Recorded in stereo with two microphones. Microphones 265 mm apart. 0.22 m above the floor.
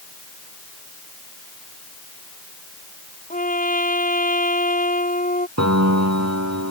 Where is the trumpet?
30° left (ahead or behind).